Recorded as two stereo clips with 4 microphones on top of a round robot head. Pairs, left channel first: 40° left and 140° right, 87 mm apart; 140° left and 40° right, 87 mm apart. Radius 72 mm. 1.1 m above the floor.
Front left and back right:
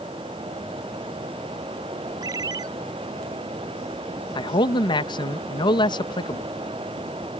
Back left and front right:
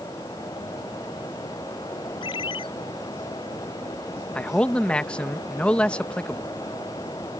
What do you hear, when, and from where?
2.2 s a ringtone: 170° left
4.3 s a man speaking: 65° left